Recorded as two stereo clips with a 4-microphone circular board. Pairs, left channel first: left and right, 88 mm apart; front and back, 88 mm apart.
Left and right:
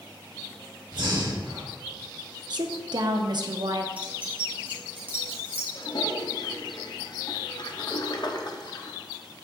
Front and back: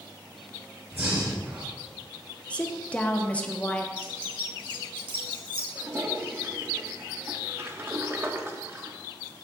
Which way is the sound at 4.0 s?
160° right.